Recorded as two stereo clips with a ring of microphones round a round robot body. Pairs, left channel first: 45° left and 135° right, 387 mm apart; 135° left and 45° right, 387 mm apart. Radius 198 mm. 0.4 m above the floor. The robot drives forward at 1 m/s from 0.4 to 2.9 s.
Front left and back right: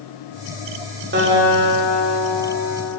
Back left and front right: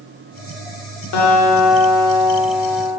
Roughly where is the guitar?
Behind.